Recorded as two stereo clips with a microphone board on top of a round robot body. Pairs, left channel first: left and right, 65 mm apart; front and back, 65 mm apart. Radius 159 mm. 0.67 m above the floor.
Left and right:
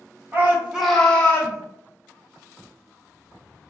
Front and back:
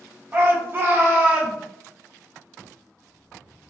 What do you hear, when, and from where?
0.3 s a shout: 130° right, 1.0 m; by 1.6 s 120° left, 1.0 m